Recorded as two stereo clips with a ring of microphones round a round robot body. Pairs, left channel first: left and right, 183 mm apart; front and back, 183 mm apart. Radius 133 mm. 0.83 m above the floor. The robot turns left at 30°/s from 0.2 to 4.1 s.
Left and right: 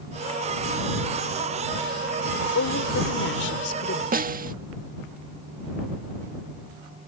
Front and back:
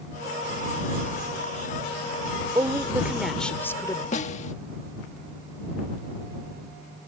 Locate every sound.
2.5 s a woman speaking: 110° left; by 4.0 s 70° left
4.1 s a snare drum: 55° right